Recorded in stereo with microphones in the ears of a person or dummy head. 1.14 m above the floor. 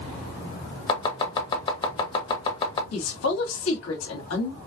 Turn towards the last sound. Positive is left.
turn(degrees=80)